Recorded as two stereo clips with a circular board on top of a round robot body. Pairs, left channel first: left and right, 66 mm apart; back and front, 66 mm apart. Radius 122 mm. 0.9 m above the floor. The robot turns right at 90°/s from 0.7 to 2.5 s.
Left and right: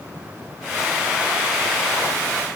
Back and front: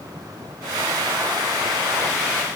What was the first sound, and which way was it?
Only background noise.